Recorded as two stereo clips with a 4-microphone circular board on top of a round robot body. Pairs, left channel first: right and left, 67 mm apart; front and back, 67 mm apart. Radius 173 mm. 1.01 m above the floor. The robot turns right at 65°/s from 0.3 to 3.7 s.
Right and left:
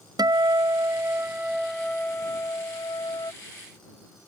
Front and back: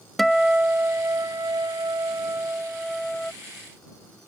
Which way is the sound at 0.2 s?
90° left.